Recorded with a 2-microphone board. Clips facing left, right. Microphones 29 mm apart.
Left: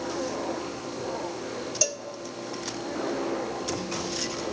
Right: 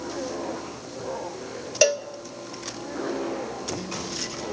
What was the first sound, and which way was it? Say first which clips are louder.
A cowbell: right 13 dB; 45° right (ahead or behind).